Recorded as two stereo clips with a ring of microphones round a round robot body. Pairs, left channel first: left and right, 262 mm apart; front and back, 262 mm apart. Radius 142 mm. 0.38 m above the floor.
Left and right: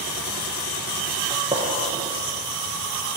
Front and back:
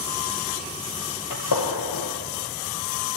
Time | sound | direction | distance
1.3 | a gunshot | 10° right | 2.5 m